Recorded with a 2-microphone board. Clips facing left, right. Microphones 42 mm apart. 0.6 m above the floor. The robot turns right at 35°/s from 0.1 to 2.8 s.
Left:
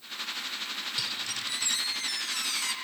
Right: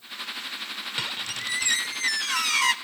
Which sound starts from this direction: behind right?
A squeak, at 1.0 s.